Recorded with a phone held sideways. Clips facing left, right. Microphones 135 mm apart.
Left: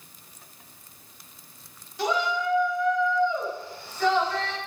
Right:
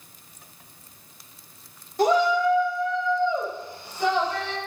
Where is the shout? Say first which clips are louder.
Right 7 dB; 50° right (ahead or behind), 2.5 m; by 4.6 s 15° right (ahead or behind), 5 m.